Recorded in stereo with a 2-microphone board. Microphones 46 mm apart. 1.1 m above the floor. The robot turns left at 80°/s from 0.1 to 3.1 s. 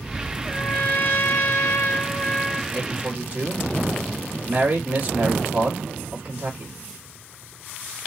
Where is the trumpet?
170° left, 1.3 m; by 2.6 s 5° right, 1.3 m.